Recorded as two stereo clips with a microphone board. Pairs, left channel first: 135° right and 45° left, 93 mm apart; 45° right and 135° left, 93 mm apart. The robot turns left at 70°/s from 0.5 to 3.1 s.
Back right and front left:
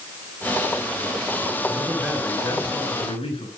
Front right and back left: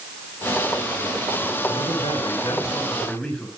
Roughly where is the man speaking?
Ahead right.